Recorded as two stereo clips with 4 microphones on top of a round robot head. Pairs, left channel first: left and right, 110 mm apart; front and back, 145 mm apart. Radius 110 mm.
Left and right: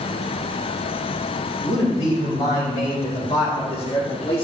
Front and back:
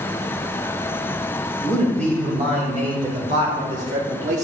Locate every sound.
1.6 s a man speaking: 145° left, 3.5 m; by 4.5 s 150° left, 1.2 m